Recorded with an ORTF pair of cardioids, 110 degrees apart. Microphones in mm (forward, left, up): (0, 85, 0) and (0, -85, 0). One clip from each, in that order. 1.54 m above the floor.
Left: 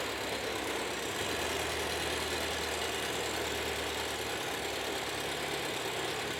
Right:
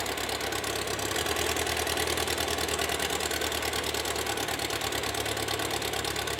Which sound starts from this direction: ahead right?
An engine running, at 0.0 s.